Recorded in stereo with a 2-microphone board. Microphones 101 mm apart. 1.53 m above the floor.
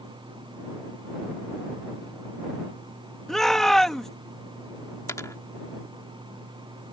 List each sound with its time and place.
3.3 s a shout: 5° left (ahead or behind)
5.1 s a dropped coin: 30° left (ahead or behind)